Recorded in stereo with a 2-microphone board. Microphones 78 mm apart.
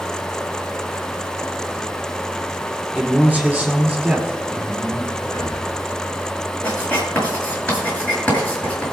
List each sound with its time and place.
3.0 s a man speaking: 20° right (ahead or behind), 4 m; by 5.1 s 10° right (ahead or behind), 5.5 m
5.2 s breathing: 55° left (ahead or behind), 2.5 m
6.6 s writing: 20° left (ahead or behind), 5 m